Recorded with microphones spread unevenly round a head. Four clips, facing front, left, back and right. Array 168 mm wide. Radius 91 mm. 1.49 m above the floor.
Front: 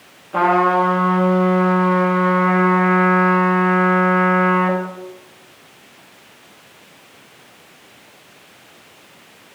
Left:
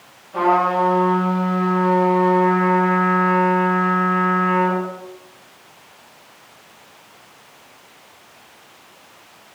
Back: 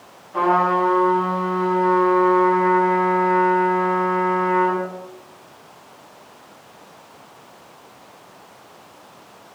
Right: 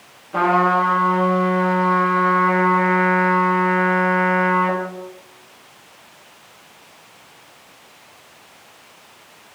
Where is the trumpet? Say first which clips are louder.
Even, front 3 dB; 25° right, 3.5 m.